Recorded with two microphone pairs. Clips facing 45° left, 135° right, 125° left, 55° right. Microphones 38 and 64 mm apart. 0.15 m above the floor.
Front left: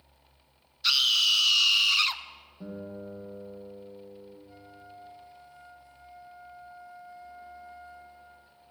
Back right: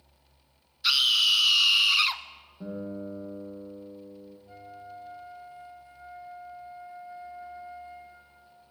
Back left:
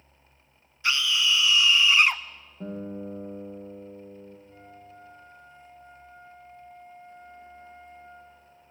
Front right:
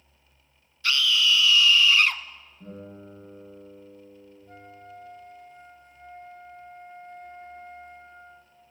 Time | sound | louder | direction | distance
0.8 | a scream | back right 1 dB, front right 2 dB | 155° left | 1.1 m
2.6 | a guitar | back right 4 dB, back left 7 dB | 135° left | 7 m
4.5 | a flute | back right 5 dB, front right 3 dB | 75° right | 2 m